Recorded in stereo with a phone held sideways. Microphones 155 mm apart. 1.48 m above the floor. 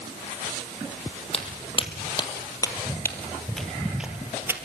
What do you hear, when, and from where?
1.3 s footsteps: 40° left (ahead or behind), 3.5 m; by 4.6 s 15° right (ahead or behind), 2.5 m